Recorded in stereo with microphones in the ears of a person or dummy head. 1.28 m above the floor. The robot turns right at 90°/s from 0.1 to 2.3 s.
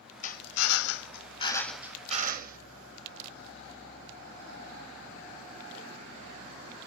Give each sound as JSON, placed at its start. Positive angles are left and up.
{"t": 0.2, "sound": "a drill", "azimuth_deg": 40, "distance_m": 0.9}